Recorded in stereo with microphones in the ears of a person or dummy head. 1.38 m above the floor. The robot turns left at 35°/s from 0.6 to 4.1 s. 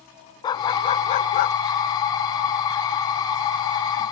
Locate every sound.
0.4 s a dog barking: 165° left; by 1.6 s 130° left